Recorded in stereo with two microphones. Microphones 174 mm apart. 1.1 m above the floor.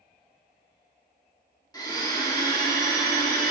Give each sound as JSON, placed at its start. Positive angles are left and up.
{"t": 1.7, "sound": "a blender", "side_deg": 20, "distance_m": 1.4}